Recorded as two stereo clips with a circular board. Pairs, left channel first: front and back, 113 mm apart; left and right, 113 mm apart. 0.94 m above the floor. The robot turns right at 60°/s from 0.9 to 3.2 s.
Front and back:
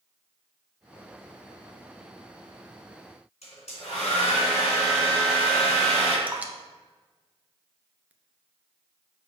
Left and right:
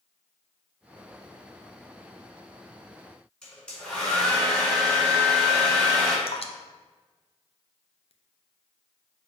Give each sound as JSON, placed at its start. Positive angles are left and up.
{"t": 3.4, "sound": "a hair dryer", "azimuth_deg": 10, "distance_m": 3.0}
{"t": 6.3, "sound": "dripping", "azimuth_deg": 105, "distance_m": 0.6}